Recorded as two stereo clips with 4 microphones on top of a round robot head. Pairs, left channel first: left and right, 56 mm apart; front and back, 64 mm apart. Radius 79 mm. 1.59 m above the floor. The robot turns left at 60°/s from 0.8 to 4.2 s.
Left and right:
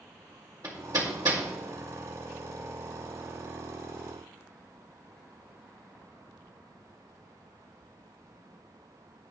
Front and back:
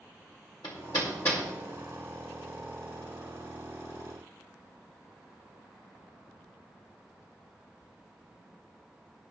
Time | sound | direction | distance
0.6 | hammering | 35° right | 2 m